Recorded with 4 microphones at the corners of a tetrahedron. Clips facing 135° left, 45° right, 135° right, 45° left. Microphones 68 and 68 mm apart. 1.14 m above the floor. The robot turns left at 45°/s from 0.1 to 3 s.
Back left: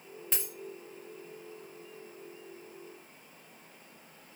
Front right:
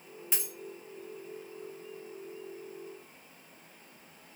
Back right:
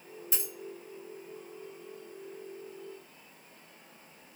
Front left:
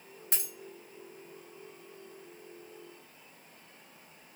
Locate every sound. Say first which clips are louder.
0.3 s a dropped coin: even, back right 2 dB; 40° left, 0.8 m; by 0.5 s 30° left, 0.8 m